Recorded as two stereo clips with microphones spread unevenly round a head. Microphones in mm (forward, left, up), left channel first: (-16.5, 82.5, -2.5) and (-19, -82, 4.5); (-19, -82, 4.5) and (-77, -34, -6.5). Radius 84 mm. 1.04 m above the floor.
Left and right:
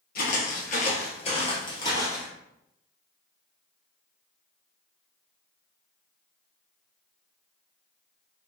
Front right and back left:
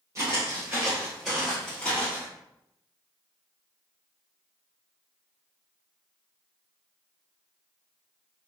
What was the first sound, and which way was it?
Footsteps, 80° left.